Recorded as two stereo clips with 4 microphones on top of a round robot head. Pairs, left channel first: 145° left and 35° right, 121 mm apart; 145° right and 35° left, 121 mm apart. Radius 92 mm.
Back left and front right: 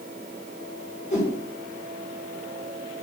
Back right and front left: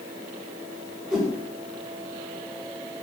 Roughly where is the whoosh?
Behind left.